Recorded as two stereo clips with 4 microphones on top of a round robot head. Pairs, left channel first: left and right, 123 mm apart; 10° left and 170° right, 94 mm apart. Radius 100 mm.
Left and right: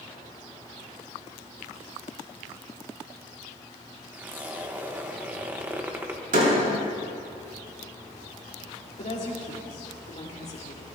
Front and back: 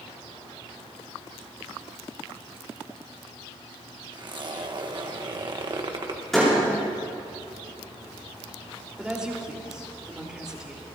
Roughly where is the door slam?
Right.